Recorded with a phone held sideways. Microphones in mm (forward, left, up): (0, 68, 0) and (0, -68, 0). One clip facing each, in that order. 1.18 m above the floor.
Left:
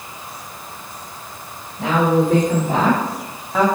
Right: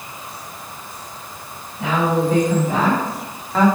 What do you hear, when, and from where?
1.8 s a woman speaking: 40° left (ahead or behind), 3.5 m; by 3.7 s 5° left (ahead or behind), 1.3 m